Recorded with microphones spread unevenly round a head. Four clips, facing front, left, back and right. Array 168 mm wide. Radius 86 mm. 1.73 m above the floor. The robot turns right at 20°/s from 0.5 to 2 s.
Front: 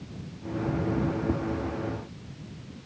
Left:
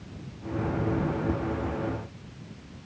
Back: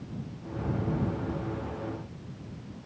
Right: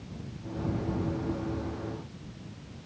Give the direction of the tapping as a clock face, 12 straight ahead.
11 o'clock.